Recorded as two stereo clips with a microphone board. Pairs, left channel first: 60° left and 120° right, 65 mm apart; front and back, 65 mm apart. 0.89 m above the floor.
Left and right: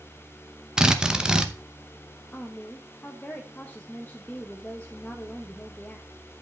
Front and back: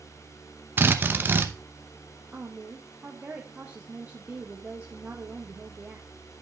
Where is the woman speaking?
120° left, 0.9 m.